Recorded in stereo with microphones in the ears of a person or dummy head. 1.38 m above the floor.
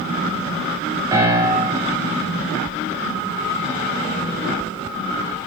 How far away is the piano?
About 2.5 m.